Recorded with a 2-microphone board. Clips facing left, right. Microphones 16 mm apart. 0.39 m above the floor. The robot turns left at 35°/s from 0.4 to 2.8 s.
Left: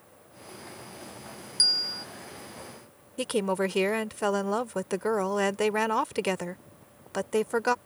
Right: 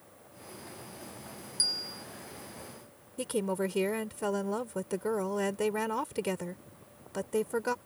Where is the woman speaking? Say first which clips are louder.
Left 4 dB; 30° left (ahead or behind).